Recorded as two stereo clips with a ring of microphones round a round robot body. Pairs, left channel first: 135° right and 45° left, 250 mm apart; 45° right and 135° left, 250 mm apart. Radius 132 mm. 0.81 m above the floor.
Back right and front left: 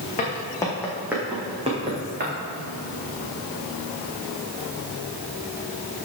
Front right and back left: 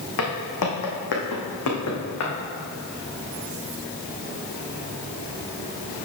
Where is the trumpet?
I don't hear a trumpet.